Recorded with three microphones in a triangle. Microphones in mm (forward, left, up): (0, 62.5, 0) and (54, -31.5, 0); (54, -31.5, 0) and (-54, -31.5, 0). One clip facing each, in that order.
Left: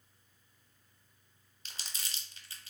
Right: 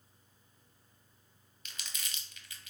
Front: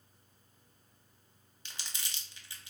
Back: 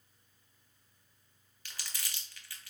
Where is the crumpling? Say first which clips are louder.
Even, even; 65° left, 0.6 m.